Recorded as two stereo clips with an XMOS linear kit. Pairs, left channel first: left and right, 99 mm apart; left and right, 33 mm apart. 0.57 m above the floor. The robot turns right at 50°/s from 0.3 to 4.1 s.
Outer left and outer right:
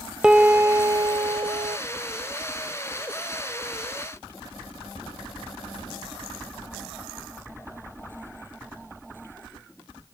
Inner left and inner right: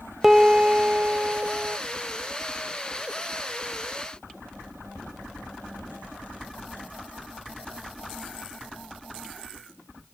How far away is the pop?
No pop in this recording.